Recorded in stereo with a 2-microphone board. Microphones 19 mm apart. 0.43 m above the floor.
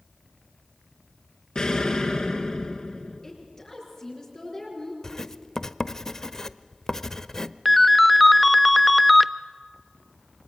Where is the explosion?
40° left (ahead or behind), 2.5 m.